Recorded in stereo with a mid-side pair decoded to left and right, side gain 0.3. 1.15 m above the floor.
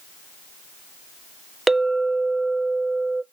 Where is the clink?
30° right, 0.6 m.